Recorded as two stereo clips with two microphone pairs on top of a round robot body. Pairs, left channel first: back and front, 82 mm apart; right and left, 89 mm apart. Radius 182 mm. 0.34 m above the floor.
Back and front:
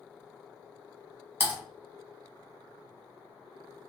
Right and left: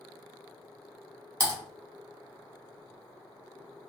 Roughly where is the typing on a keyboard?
Ahead left.